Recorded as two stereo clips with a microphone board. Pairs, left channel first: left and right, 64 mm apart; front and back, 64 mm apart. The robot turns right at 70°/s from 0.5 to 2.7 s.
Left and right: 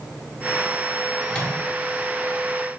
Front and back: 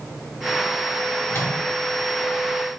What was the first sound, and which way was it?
A microwave, 15° left.